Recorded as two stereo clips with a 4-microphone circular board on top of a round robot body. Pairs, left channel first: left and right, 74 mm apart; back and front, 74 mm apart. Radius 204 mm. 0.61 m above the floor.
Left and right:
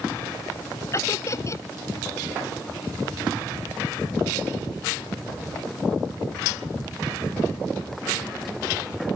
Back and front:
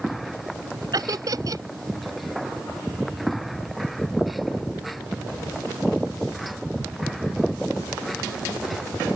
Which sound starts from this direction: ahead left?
Laughter, at 0.9 s.